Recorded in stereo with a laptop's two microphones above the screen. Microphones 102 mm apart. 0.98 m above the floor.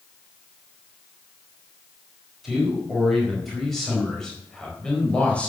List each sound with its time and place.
2.4 s a man speaking: 5° right (ahead or behind), 5.5 m; by 5.5 s 10° left (ahead or behind), 4.5 m